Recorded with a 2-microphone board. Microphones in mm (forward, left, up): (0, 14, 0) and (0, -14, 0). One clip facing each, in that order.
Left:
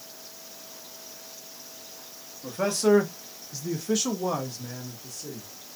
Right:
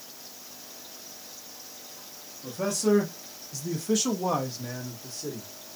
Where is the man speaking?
55° left (ahead or behind), 1.2 m; by 5.5 s 45° right (ahead or behind), 1.0 m.